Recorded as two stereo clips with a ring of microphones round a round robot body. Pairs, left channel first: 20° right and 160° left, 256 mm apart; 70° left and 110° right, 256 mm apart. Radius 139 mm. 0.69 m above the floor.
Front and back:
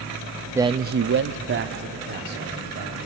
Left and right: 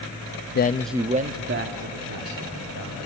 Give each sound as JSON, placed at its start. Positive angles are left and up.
{"t": 0.6, "sound": "a man speaking", "azimuth_deg": 80, "distance_m": 0.7}